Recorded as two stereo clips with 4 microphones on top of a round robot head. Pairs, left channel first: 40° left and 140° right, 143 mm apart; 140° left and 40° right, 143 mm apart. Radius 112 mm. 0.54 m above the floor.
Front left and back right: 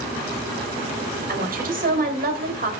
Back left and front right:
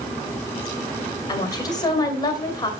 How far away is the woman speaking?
About 2.5 m.